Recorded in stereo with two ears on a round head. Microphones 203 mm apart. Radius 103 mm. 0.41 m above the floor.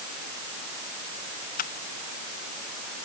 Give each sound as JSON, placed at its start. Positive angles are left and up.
{"t": 1.6, "sound": "a camera shutter", "side_deg": 40}